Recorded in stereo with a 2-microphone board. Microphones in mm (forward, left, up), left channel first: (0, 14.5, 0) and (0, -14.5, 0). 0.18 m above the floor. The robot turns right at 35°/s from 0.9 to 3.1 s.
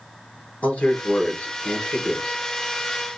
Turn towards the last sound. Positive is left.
turn(degrees=175)